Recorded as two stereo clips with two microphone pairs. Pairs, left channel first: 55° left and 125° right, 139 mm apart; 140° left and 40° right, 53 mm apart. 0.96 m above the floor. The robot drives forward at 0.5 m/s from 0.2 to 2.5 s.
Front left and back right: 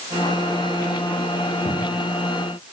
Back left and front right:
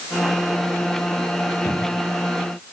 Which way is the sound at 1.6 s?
130° left.